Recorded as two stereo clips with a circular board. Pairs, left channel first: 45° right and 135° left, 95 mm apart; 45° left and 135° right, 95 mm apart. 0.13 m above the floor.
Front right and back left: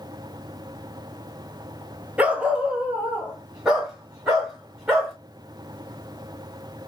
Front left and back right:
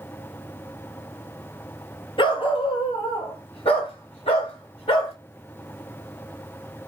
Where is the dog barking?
60° left, 0.8 m; by 5.1 s 50° left, 2.5 m.